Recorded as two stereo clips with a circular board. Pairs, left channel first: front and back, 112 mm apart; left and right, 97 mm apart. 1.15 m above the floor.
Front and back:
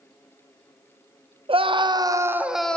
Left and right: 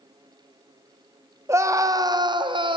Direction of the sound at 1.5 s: 150° right.